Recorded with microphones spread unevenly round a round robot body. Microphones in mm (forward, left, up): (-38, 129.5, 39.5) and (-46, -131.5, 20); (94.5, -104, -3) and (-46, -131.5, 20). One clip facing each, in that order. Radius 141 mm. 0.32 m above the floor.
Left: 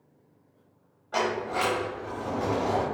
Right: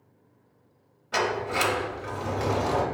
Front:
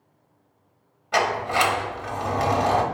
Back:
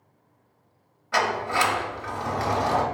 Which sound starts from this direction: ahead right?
A sliding door, at 1.1 s.